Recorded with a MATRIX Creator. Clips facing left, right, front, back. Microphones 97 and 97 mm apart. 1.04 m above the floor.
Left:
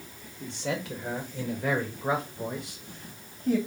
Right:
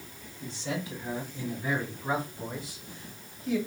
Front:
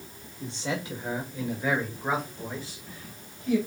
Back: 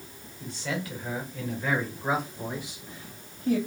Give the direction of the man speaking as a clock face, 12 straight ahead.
10 o'clock.